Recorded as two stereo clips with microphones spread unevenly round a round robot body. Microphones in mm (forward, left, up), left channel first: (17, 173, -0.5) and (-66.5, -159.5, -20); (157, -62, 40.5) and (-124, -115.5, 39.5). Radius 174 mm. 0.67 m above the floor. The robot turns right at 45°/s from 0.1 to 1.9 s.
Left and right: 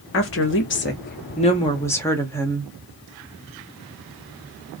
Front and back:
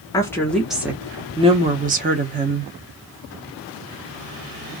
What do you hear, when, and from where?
0.1 s a woman speaking: 80° left, 0.7 m; by 2.7 s 160° left, 0.7 m